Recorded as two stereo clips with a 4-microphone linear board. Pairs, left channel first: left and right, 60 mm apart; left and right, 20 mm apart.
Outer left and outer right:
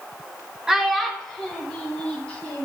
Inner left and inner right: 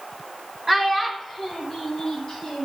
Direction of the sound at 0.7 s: 5° right (ahead or behind).